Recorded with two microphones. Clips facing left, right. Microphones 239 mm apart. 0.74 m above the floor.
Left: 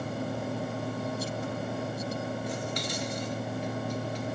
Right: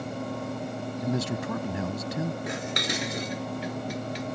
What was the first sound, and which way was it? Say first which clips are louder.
A man speaking: right 5 dB; 80° right.